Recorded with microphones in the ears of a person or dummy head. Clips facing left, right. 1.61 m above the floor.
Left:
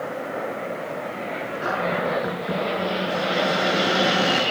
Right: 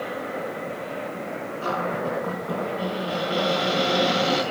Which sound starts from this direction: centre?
A cupboard door, at 1.6 s.